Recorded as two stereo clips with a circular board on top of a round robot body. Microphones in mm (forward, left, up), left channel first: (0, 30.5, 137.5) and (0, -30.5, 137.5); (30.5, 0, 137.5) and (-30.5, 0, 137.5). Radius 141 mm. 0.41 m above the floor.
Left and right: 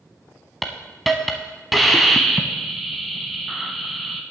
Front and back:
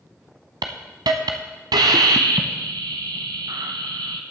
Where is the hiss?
Straight behind, 0.7 m.